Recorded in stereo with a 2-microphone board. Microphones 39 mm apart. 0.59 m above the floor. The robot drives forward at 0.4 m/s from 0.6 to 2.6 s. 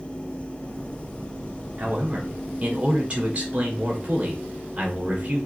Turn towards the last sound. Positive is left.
turn(degrees=-30)  # may be behind; listen again after turning